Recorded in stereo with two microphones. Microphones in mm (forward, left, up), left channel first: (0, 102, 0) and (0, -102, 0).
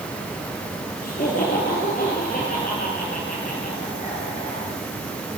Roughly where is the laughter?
Left.